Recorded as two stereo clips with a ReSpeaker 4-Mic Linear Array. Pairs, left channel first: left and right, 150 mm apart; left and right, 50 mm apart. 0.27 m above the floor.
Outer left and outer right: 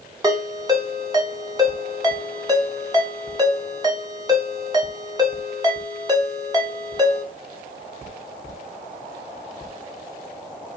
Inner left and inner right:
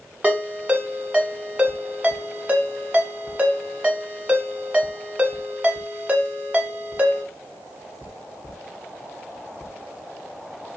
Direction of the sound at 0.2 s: 25° right (ahead or behind).